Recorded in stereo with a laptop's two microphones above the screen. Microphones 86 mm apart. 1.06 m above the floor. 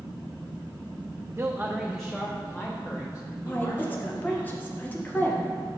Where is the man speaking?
30° right (ahead or behind), 0.6 m; by 4.4 s 50° left (ahead or behind), 1.8 m.